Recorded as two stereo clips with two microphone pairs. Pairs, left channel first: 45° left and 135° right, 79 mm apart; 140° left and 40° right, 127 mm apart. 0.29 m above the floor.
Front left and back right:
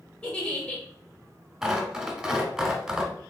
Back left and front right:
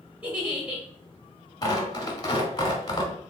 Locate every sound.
0.2 s a giggle: 20° left, 1.5 m
1.6 s tearing paper: 150° left, 1.1 m